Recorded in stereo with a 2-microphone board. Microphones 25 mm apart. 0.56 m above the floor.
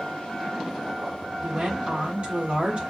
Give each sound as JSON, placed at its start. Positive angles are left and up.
{"t": 1.4, "sound": "a woman speaking", "side_deg": -50, "distance_m": 1.4}